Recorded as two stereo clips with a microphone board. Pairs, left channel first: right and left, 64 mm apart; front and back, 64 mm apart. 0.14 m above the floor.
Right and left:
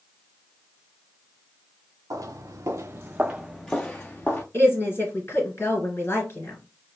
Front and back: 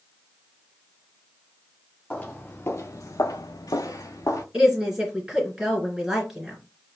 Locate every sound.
2.1 s footsteps: 70° left, 0.7 m; by 4.4 s 30° right, 0.8 m
4.5 s a woman speaking: 105° right, 2 m